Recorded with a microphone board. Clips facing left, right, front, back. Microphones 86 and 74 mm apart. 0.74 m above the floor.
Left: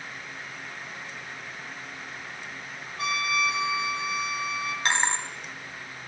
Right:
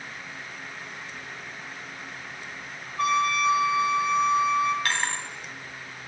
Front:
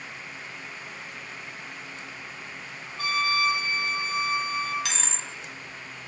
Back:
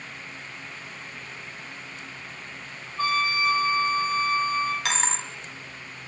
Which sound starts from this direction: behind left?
A dropped coin, at 4.8 s.